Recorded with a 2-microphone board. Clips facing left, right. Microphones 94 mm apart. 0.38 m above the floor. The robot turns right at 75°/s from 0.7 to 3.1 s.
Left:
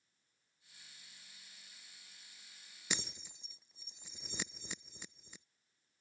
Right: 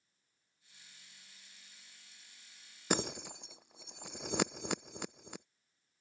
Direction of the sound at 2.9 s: 50° right (ahead or behind).